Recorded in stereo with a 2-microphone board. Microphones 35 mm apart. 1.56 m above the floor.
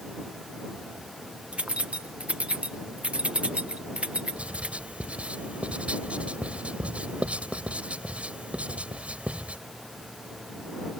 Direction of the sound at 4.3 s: 40° right (ahead or behind).